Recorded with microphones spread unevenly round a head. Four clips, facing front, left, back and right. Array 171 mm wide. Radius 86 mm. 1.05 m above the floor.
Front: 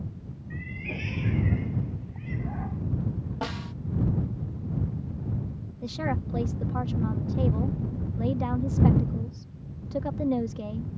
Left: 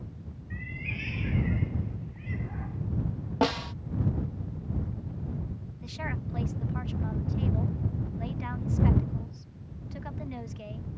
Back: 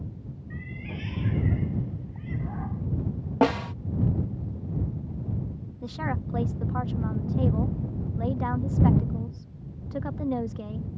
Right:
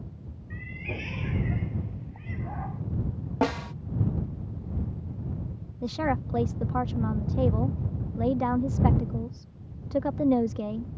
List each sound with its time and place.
0.5 s a cat meowing: 65° right
3.4 s a snare drum: straight behind
5.8 s a woman speaking: 75° right